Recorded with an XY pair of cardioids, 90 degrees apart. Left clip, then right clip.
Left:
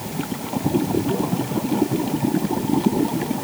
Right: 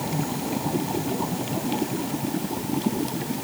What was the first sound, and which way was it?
Only background noise.